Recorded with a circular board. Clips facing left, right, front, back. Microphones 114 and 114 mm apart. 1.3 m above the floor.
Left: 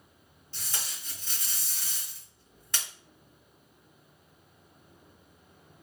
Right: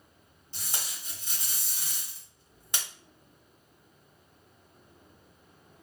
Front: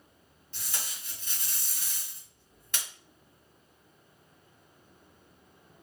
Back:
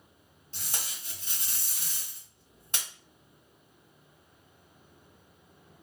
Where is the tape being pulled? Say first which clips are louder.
Right 1 dB, even; 150° right, 1.5 m.